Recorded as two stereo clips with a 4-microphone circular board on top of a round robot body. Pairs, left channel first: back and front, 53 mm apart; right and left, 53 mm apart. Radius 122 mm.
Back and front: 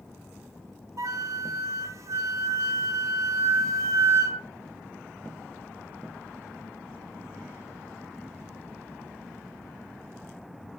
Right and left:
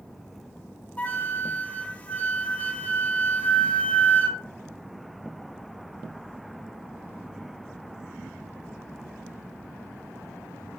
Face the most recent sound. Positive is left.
turn(degrees=-25)